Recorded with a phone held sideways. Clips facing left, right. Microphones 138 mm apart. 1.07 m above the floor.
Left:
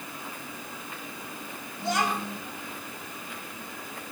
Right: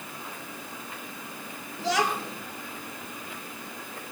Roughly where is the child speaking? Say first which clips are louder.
Right 1 dB; right.